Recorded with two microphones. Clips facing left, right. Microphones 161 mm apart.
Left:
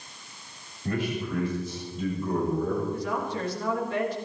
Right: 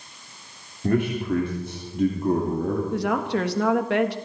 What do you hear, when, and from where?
0.8 s a man speaking: 55° right (ahead or behind), 3.5 m; by 2.8 s 70° right (ahead or behind), 3 m
2.9 s a woman speaking: 80° right, 1.5 m